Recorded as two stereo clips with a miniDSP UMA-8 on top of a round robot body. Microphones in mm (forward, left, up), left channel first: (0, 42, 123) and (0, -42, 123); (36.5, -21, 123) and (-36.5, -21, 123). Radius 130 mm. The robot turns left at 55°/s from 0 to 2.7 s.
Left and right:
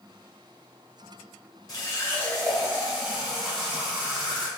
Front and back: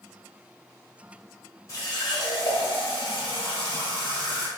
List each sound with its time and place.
1.7 s a running tap: 45° left, 1.6 m; by 4.5 s 10° right, 1.6 m